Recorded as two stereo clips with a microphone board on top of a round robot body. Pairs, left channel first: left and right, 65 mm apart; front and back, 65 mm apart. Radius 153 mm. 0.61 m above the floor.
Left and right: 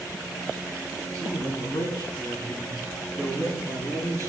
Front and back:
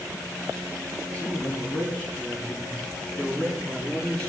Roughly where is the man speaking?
Left.